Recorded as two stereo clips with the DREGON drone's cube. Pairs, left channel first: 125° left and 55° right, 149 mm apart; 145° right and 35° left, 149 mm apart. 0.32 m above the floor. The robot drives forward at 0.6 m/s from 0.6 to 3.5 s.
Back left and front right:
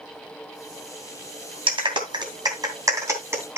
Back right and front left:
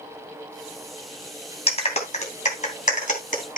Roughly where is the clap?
Right.